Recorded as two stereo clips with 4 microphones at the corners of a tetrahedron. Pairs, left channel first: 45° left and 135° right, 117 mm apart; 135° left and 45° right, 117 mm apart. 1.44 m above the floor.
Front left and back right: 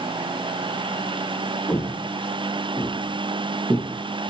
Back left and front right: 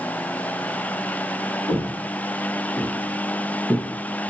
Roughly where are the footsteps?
Ahead.